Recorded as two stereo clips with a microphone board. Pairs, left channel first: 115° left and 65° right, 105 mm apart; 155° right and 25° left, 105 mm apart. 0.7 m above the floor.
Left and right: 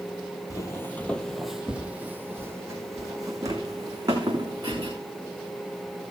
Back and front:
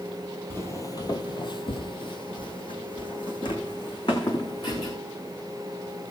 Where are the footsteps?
150° left, 0.9 m; by 4.9 s 115° right, 3 m.